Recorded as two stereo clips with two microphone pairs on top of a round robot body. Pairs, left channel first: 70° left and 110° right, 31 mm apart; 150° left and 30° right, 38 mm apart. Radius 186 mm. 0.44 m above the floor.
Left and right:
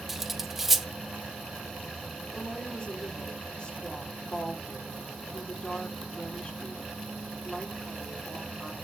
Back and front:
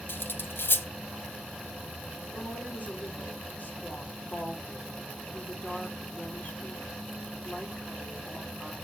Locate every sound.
0.1 s cutlery clinking: 165° left, 0.7 m
2.3 s a woman speaking: 120° left, 1.9 m